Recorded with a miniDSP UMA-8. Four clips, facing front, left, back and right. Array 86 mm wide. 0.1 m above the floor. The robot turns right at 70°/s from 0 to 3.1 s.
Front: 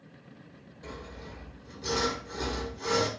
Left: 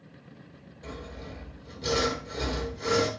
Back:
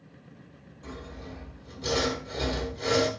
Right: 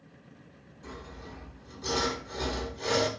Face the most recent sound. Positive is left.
turn(degrees=-160)